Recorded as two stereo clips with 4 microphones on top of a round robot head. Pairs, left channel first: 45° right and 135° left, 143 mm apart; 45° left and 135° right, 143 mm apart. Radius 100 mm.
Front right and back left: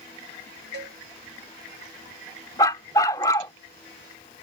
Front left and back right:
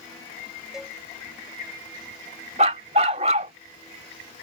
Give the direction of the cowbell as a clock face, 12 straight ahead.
7 o'clock.